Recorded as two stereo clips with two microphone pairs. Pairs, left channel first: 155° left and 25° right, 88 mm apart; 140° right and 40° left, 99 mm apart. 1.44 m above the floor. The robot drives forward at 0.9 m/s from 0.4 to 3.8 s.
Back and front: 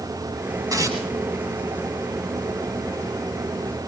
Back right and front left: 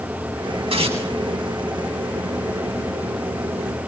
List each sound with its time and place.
0.7 s tearing paper: 20° left, 8.5 m